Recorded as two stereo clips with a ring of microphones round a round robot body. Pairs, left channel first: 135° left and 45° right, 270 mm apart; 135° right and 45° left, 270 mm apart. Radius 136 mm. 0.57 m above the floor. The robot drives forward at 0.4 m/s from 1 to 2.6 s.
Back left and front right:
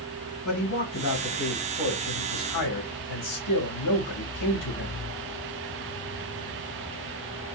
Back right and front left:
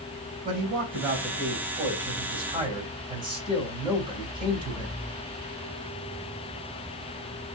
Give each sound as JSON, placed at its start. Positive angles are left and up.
{"t": 0.5, "sound": "a man speaking", "azimuth_deg": 105, "distance_m": 2.5}